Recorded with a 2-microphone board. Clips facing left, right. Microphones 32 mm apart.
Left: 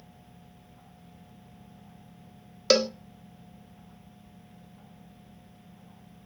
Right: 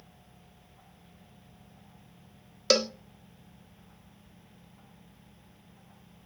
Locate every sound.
2.7 s a cowbell: centre (ahead or behind), 0.6 m